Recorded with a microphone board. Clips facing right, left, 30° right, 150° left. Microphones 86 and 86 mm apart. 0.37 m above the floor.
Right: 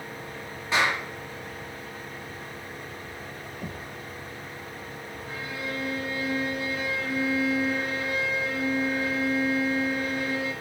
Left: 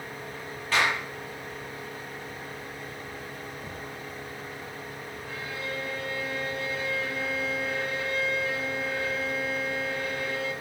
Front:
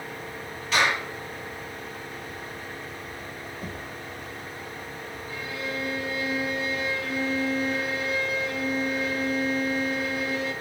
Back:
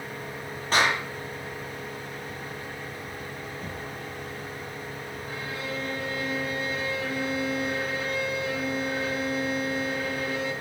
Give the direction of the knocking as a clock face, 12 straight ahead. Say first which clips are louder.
Right 1 dB, even; 4 o'clock.